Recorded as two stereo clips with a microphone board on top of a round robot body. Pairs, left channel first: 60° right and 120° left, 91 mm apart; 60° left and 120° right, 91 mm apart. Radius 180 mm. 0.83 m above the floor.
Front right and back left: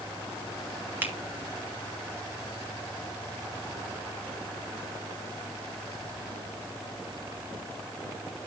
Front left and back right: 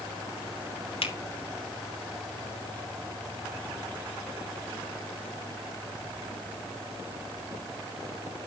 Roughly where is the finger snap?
Ahead left.